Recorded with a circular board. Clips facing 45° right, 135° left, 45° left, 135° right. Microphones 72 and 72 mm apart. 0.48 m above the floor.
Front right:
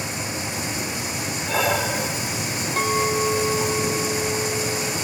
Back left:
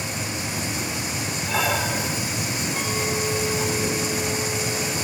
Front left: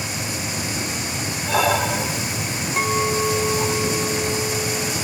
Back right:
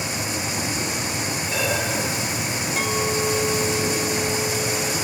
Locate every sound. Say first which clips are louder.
1.4 s breathing: front right 2 dB, front left 7 dB; 45° left, 2 m
2.8 s a clink: front right 7 dB, front left 4 dB; straight ahead, 2.0 m